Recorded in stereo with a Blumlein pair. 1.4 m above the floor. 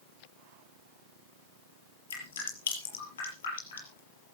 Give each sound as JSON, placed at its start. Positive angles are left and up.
{"t": 2.1, "sound": "dripping", "azimuth_deg": 65, "distance_m": 5.5}